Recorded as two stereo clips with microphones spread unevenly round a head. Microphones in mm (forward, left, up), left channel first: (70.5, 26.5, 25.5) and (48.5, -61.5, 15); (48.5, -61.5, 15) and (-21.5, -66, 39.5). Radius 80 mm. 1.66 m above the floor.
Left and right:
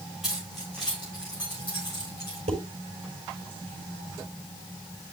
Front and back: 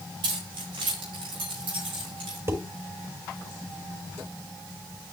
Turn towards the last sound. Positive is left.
turn(degrees=-130)